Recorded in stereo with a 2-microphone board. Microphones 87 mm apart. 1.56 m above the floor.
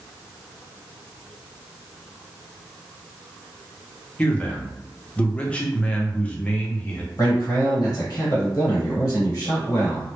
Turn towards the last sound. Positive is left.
turn(degrees=50)  # may be behind; listen again after turning